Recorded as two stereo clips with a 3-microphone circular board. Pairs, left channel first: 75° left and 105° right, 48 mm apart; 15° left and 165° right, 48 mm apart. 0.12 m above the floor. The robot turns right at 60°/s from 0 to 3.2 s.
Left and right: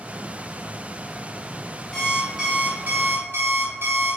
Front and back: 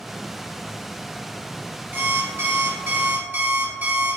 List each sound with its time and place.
1.9 s an alarm clock: 155° left, 1.2 m; by 4.2 s 130° right, 1.2 m